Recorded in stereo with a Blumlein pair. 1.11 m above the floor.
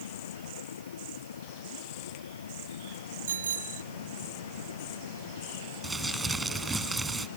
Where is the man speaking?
I don't hear a man speaking.